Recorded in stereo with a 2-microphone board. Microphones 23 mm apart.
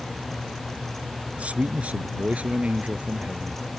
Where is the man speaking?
70° right (ahead or behind).